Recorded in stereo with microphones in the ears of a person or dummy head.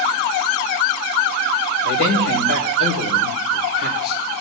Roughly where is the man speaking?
Left.